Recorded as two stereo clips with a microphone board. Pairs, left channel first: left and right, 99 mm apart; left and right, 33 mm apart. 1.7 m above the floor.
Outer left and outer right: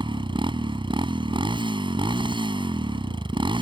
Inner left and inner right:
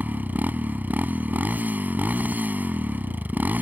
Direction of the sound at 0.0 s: 55° right (ahead or behind).